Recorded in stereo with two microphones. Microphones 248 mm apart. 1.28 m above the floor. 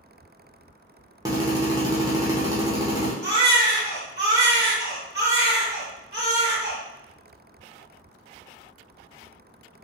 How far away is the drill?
About 0.9 m.